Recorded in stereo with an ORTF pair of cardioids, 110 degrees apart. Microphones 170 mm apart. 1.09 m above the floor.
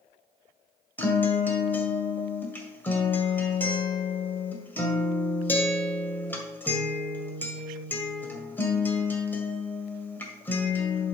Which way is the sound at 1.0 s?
10° left.